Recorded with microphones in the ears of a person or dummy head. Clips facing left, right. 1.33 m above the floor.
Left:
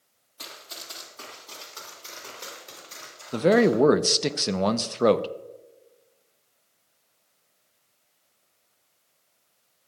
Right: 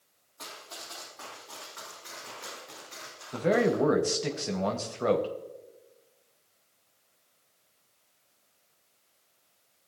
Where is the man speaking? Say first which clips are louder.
Left 6 dB; 60° left (ahead or behind), 0.6 m.